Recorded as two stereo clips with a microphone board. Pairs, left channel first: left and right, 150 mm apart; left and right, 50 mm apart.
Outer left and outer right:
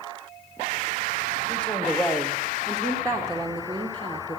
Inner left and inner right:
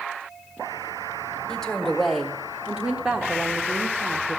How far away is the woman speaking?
About 1.5 m.